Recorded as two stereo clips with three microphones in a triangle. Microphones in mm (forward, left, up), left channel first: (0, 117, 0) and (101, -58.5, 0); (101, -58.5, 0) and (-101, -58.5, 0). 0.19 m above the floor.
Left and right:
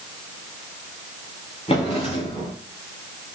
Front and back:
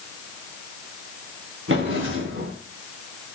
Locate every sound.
1.7 s a drawer: straight behind, 6.5 m